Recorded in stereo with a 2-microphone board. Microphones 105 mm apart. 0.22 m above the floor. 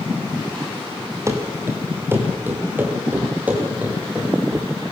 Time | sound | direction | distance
1.3 | running footsteps | 25° right (ahead or behind) | 4.5 m